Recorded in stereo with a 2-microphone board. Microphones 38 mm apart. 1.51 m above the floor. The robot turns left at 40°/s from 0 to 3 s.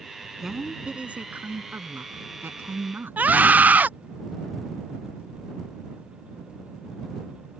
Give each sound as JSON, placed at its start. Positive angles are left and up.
{"t": 0.4, "sound": "a woman speaking", "azimuth_deg": -10}
{"t": 3.2, "sound": "a scream", "side_deg": -50}